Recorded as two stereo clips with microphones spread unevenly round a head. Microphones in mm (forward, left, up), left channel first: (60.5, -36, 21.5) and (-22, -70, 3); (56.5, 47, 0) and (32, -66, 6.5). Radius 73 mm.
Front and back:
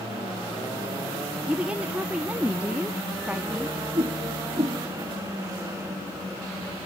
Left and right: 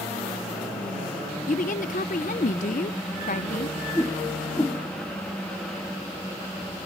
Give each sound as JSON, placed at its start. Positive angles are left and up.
{"t": 1.5, "sound": "a woman speaking", "azimuth_deg": 120, "distance_m": 0.6}
{"t": 4.0, "sound": "a whoosh", "azimuth_deg": 155, "distance_m": 1.1}